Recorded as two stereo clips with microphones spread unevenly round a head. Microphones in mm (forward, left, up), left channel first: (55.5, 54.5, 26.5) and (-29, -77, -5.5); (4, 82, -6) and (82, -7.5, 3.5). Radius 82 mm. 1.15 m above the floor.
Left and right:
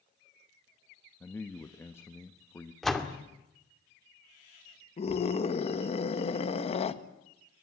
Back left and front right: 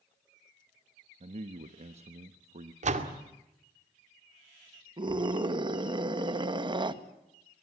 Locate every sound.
1.2 s a man speaking: 20° right, 1.2 m
2.8 s a door slam: 30° right, 2 m
5.0 s a scream: straight ahead, 1.7 m